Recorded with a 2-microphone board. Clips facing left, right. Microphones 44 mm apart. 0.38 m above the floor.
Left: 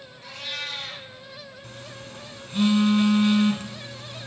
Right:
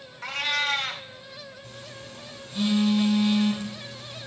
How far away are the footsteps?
No footsteps in this recording.